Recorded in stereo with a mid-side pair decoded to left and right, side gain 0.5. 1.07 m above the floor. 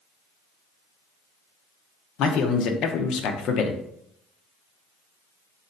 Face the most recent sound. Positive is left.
turn(degrees=70)